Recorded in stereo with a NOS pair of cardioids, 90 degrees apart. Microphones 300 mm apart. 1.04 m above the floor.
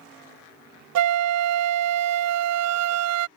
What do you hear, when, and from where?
0.9 s a flute: 55° right